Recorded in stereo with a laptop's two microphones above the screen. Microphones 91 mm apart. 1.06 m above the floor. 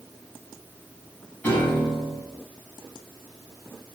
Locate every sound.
1.4 s a piano: 20° left (ahead or behind), 7 m